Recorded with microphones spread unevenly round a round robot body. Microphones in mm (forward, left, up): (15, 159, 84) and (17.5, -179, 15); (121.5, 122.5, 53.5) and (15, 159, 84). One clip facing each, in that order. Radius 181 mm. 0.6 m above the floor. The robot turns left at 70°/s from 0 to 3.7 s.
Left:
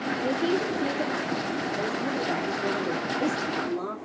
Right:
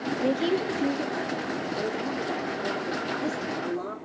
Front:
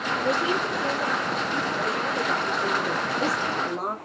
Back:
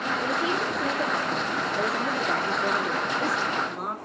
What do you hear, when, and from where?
0.2 s a woman speaking: 95° right, 1.8 m; by 4.0 s 20° left, 1.8 m